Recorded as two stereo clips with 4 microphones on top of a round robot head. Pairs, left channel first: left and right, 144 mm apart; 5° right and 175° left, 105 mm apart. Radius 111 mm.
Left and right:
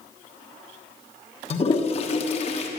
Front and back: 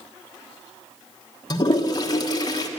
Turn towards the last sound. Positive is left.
turn(degrees=45)